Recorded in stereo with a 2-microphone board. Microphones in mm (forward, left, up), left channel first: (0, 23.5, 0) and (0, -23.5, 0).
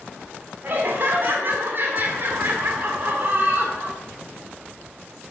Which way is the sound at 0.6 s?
50° right (ahead or behind).